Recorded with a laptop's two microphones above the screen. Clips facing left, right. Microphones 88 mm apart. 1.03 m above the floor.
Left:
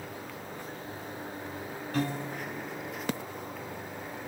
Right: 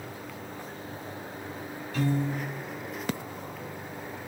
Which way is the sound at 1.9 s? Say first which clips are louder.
Right 4 dB; 60° left (ahead or behind).